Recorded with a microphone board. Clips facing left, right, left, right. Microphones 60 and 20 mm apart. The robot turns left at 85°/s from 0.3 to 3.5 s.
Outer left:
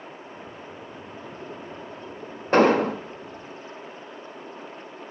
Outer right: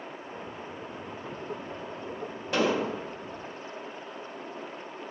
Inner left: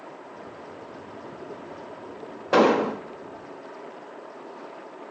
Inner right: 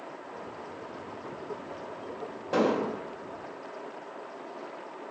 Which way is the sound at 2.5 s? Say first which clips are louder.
Outer left 9 dB, inner left 7 dB; 125° left.